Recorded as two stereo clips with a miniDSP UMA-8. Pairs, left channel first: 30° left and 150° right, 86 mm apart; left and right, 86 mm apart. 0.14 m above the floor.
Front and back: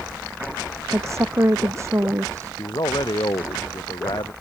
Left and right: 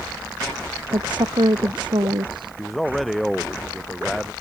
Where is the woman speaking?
95° right.